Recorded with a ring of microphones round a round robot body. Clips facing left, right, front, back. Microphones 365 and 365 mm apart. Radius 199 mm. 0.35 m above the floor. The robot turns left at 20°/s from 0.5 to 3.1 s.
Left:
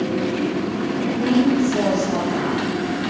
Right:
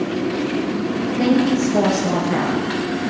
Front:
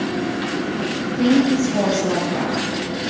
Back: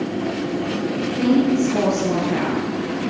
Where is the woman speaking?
75° right, 7.5 m; by 3.0 s 115° right, 7.5 m.